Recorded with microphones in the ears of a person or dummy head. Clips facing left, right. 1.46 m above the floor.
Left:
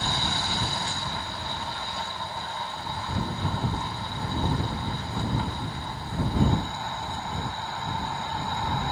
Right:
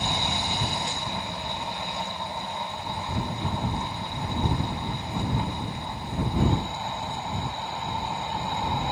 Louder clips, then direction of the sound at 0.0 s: Right 1 dB; 15° right (ahead or behind).